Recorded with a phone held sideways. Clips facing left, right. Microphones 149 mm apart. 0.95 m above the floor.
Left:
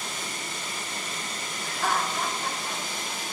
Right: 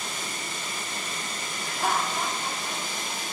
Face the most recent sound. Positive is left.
turn(degrees=-15)  # may be behind; listen again after turning